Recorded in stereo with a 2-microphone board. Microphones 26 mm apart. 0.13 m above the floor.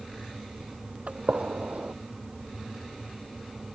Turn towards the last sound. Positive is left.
turn(degrees=-60)  # may be behind; listen again after turning